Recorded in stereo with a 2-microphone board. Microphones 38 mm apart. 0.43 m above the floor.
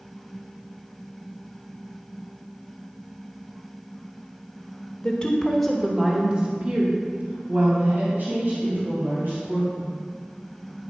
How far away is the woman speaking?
About 1.4 m.